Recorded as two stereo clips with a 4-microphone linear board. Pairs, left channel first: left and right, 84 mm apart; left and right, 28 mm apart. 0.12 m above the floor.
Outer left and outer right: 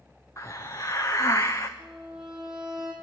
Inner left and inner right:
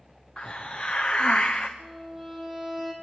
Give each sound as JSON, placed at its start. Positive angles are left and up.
{"t": 0.4, "sound": "a hiss", "side_deg": 40, "distance_m": 1.9}
{"t": 1.8, "sound": "a violin", "side_deg": -5, "distance_m": 4.5}